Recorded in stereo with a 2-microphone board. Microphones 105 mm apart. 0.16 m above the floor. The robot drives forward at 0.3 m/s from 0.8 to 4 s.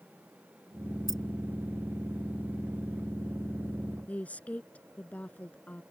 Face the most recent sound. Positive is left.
turn(degrees=15)  # may be behind; listen again after turning